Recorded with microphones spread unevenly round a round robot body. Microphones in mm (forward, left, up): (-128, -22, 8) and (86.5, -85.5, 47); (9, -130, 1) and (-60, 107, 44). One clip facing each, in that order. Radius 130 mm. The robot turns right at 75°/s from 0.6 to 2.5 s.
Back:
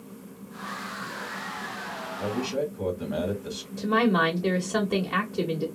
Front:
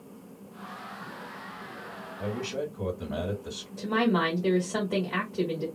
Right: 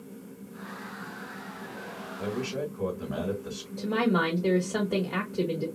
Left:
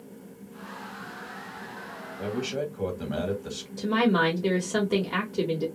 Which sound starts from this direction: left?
A man speaking, at 2.2 s.